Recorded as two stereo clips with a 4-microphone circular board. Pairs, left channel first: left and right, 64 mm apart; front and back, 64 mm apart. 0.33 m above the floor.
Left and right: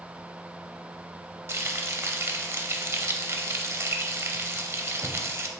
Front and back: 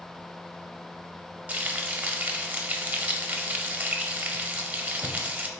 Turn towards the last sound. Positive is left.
turn(degrees=-125)